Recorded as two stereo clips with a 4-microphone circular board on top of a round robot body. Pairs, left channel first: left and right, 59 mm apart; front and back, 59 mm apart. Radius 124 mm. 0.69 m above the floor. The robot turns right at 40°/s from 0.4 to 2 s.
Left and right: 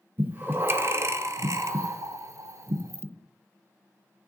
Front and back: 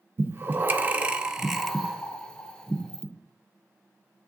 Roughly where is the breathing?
Behind right.